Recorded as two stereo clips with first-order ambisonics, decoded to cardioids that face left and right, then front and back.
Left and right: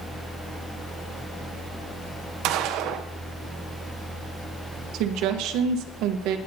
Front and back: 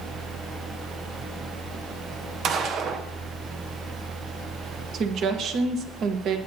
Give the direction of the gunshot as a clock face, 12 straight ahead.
4 o'clock.